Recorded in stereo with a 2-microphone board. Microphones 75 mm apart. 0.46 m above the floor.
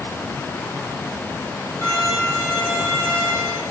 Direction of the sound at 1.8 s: 40° left (ahead or behind).